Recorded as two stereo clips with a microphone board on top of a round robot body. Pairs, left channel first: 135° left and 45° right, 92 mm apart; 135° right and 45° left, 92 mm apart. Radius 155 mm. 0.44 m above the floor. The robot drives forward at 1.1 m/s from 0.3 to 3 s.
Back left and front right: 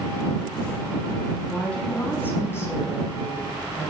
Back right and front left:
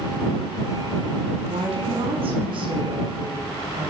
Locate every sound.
1.5 s a woman speaking: 55° left, 4.5 m; by 3.9 s 80° left, 4 m